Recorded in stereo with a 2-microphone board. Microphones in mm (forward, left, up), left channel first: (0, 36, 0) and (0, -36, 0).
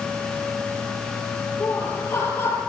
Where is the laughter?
35° left (ahead or behind), 5 m.